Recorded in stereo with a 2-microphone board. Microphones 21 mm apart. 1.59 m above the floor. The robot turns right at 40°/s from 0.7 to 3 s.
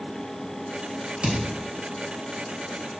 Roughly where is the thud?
Right.